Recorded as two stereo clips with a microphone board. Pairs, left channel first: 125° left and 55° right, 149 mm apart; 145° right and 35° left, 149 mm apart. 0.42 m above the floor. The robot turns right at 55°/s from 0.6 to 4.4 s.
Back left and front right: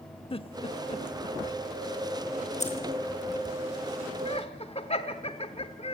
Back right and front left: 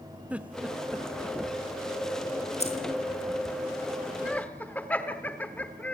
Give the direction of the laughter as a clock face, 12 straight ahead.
8 o'clock.